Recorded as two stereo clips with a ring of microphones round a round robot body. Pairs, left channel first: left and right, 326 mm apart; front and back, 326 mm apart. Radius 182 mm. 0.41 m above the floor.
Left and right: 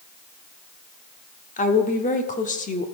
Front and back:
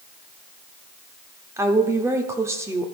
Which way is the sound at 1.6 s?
110° left.